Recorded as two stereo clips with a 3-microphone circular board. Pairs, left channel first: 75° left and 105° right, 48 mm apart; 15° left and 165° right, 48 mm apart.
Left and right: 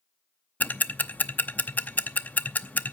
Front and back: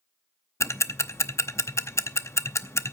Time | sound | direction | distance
0.6 | ticking | 20° left | 0.7 m